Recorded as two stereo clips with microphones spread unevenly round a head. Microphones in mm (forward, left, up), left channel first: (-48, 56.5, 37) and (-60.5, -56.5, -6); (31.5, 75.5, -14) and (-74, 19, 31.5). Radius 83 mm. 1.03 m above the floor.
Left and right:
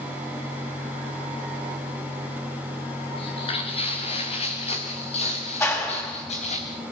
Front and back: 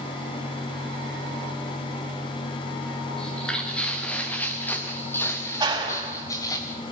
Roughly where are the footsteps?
Behind left.